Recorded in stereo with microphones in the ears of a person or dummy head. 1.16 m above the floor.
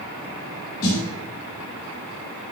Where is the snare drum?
45° left (ahead or behind), 1.2 m.